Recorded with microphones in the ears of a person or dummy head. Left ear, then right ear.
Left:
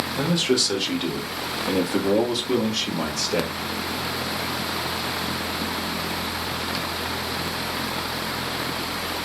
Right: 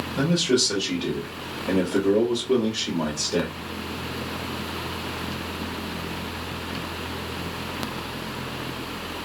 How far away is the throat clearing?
I don't hear throat clearing.